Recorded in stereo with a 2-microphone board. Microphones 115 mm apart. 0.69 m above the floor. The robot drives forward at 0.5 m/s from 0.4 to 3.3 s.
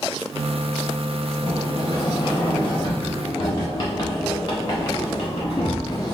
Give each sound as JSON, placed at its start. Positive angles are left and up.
{"t": 1.4, "sound": "a sliding door", "side_deg": 40, "distance_m": 1.1}